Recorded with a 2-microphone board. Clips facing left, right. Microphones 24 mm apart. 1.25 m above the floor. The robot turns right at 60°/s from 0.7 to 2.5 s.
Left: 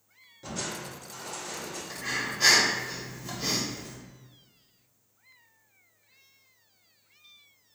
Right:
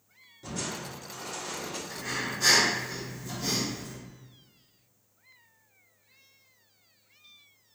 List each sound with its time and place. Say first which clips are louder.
0.4 s crushing: even; 155° left, 1.2 m; by 1.8 s 135° right, 1.2 m
1.9 s breathing: left 3 dB; 25° left, 1.5 m; by 4.0 s 60° left, 1.5 m